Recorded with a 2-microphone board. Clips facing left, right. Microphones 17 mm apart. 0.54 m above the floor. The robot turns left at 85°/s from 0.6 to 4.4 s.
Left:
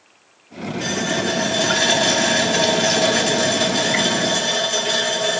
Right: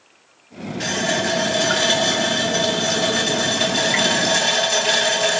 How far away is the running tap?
About 3 m.